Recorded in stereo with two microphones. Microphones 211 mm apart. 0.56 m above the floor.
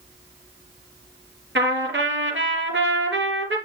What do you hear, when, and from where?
1.6 s a trumpet: 65° right (ahead or behind), 3 m